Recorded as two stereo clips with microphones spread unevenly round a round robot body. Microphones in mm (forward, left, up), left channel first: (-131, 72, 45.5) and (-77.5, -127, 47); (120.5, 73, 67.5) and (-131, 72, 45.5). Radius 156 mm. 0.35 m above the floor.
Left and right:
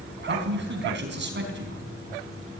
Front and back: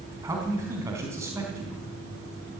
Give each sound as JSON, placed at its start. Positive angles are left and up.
{"t": 0.2, "sound": "a man speaking", "azimuth_deg": -100, "distance_m": 4.0}